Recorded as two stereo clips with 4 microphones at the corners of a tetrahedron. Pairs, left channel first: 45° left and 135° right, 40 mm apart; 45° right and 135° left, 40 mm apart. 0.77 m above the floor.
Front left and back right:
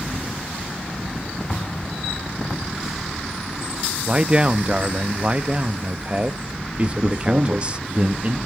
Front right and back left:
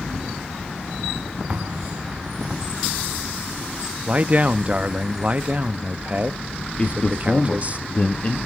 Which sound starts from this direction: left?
An explosion, at 1.5 s.